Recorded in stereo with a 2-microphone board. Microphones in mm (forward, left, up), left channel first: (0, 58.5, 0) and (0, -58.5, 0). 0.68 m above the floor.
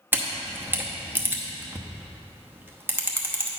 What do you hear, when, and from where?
0.1 s a camera shutter: 20° right (ahead or behind), 0.8 m